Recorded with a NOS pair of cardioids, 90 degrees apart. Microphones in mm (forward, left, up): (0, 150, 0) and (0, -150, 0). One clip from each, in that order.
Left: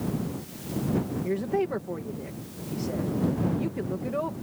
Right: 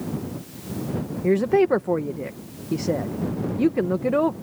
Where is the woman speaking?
60° right.